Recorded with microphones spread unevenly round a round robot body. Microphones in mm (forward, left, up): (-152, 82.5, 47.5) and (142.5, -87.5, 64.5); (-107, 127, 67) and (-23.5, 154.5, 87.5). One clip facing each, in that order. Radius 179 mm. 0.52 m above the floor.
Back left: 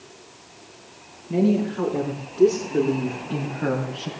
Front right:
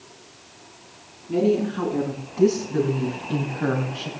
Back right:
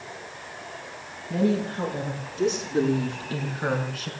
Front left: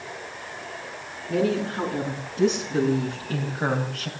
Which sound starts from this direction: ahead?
A woman speaking, at 1.3 s.